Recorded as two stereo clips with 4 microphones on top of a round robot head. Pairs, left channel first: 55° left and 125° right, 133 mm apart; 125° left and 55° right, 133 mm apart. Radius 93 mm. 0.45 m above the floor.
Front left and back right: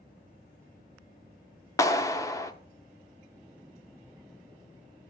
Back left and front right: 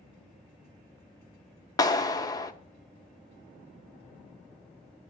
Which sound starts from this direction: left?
A clap, at 1.8 s.